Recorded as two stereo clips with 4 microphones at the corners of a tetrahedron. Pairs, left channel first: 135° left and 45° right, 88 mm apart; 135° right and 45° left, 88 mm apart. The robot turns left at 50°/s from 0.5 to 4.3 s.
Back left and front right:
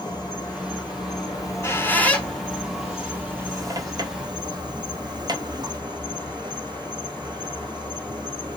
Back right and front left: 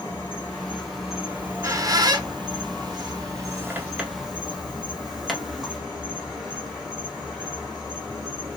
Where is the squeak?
105° left, 0.7 m; by 5.8 s 45° right, 0.7 m.